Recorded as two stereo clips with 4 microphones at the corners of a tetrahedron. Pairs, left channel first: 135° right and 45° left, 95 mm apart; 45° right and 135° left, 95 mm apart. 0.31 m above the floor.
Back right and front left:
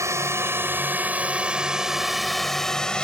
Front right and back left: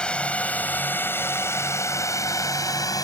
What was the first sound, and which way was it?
A drone, 25° left.